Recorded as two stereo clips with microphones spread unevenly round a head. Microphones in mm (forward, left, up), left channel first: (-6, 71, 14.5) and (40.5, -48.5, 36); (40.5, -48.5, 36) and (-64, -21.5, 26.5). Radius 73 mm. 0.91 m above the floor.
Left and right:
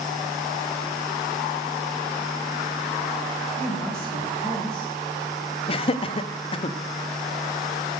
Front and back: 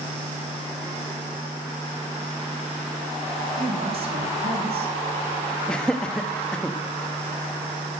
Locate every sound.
3.6 s a woman speaking: 165° right, 4 m
5.7 s laughter: 70° left, 1.2 m